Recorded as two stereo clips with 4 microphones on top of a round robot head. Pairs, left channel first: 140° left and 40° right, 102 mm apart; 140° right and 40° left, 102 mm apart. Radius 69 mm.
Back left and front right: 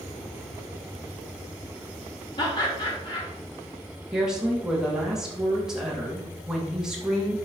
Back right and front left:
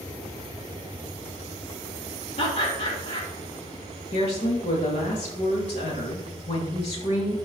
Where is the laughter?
175° right, 4 m.